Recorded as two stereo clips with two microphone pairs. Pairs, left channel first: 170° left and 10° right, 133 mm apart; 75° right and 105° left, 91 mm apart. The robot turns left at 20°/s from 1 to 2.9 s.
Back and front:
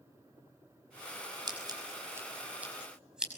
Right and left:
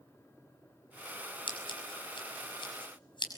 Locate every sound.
1.5 s scissors: 65° right, 5.5 m; by 3.3 s 95° right, 5.5 m